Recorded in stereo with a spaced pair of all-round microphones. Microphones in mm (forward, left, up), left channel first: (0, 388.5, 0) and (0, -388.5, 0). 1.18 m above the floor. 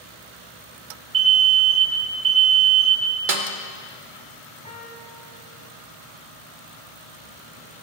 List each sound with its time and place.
1.1 s an alarm: 60° right (ahead or behind), 1.2 m
3.3 s a snare drum: 85° right, 1.2 m
4.7 s a piano: 10° left (ahead or behind), 2.5 m